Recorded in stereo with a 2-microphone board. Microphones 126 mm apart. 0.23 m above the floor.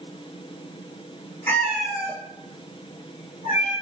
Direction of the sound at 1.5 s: 20° left (ahead or behind).